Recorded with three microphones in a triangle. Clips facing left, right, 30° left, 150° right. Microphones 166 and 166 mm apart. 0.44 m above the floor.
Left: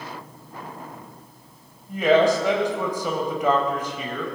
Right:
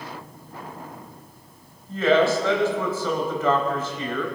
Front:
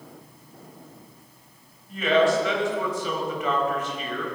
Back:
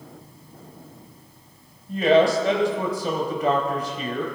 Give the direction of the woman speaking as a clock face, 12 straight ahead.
7 o'clock.